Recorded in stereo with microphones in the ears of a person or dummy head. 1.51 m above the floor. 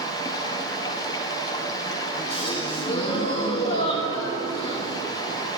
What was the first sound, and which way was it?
Running water, 30° left (ahead or behind).